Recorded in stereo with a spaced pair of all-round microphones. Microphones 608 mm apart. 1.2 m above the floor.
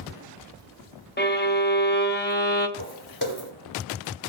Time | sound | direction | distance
1.2 | a violin | 20° left (ahead or behind) | 0.6 m
2.8 | footsteps | 35° left (ahead or behind) | 1.4 m